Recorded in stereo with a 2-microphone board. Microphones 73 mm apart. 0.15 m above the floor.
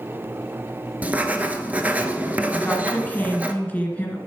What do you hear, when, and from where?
1.0 s writing: 20° right (ahead or behind), 0.7 m
2.5 s a woman speaking: 20° left (ahead or behind), 1.7 m